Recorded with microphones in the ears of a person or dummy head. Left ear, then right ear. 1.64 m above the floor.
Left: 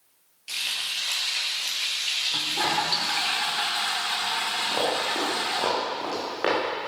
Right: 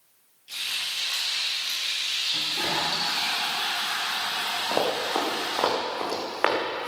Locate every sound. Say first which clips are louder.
0.5 s frying: left 1 dB; 50° left (ahead or behind), 5 m
2.3 s a toilet flushing: left 1 dB; 35° left (ahead or behind), 1.7 m
4.7 s running footsteps: right 2 dB; 25° right (ahead or behind), 3 m; by 6.9 s 35° right (ahead or behind), 5.5 m